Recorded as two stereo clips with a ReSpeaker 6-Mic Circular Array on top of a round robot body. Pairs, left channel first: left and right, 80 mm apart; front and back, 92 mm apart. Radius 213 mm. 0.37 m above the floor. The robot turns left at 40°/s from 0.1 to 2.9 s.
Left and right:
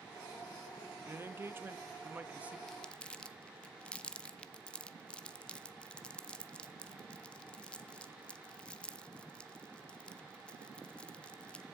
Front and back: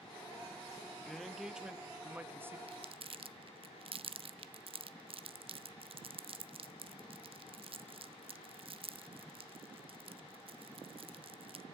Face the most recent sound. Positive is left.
turn(degrees=165)